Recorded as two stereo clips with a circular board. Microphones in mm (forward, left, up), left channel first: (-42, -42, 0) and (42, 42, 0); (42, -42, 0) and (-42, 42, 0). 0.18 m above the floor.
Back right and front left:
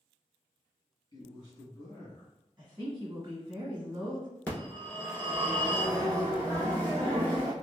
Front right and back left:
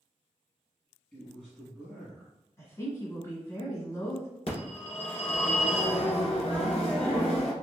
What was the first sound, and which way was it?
A man speaking, 125° right.